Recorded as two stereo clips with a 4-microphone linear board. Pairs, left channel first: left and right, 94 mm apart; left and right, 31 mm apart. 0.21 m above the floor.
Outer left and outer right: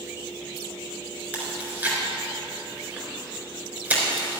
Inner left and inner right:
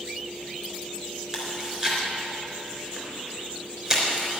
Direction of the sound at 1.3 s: 20° right (ahead or behind).